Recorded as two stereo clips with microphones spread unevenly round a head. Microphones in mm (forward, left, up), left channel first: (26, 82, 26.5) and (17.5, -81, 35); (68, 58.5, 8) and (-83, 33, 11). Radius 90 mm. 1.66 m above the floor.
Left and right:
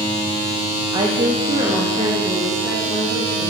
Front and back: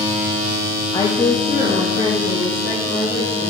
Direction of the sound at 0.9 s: 50° right.